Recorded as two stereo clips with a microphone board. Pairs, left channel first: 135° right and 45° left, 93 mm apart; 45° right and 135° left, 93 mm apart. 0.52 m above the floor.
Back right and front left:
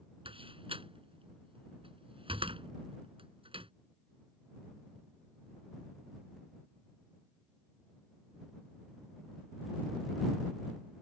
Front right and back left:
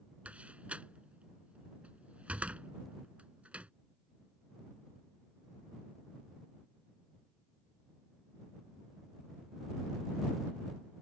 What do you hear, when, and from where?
0.2 s a door slam: 60° left